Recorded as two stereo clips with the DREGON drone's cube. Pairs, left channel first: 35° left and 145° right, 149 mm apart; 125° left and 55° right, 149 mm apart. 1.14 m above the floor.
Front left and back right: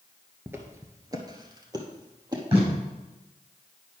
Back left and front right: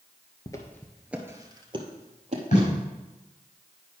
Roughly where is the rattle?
No rattle in this recording.